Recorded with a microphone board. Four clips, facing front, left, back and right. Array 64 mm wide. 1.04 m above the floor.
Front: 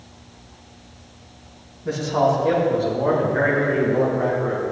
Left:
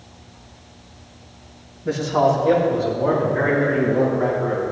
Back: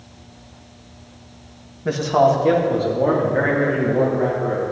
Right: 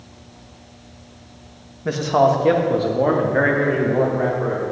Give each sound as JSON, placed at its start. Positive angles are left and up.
{"t": 1.9, "sound": "a man speaking", "azimuth_deg": -140, "distance_m": 1.5}